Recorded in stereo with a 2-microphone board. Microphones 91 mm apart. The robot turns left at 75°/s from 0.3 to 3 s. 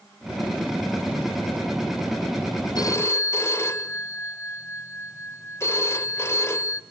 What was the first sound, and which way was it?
A phone ringing, 50° left (ahead or behind).